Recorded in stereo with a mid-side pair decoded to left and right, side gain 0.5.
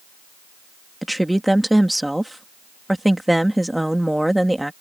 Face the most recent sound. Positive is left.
turn(degrees=-5)